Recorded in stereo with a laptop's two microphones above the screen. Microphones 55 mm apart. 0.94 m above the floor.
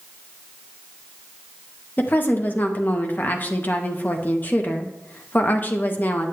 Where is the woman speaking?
35° left (ahead or behind), 0.6 m.